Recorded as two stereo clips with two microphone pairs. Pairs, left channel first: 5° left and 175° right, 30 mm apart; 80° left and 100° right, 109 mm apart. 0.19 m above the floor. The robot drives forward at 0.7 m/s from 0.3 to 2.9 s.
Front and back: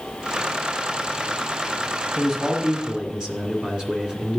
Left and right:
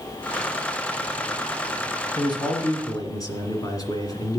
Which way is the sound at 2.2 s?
115° left.